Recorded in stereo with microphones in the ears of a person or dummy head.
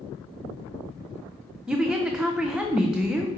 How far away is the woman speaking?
About 0.6 m.